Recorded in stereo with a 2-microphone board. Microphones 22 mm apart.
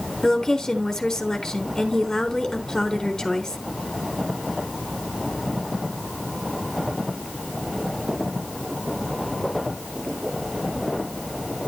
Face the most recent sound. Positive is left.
turn(degrees=20)  # may be behind; listen again after turning